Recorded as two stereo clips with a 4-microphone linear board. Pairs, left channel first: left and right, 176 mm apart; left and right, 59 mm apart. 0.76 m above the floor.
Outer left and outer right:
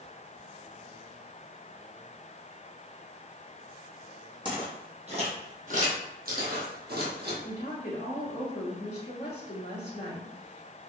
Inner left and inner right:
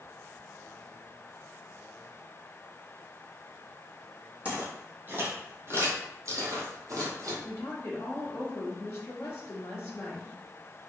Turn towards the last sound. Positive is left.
turn(degrees=40)  # may be behind; listen again after turning